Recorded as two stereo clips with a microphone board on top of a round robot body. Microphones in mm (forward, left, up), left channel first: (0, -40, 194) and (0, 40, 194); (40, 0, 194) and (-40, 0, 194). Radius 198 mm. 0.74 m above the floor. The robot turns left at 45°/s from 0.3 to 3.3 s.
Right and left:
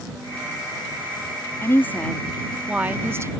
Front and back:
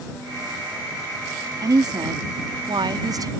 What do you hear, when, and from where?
1.6 s a woman speaking: 145° right; by 3.3 s 140° left